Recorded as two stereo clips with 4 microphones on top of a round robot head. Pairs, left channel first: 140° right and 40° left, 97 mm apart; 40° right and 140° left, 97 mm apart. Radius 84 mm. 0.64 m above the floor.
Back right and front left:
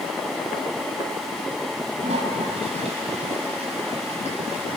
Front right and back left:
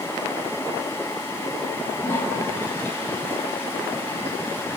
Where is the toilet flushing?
30° left, 5 m.